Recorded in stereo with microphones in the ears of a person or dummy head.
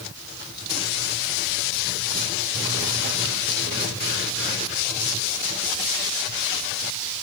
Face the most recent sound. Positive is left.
No sound to turn to.